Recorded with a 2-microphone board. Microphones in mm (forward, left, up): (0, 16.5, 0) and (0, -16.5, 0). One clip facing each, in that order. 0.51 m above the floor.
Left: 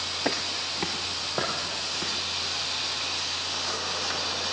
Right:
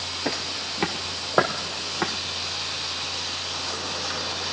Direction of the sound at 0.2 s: 10° left (ahead or behind).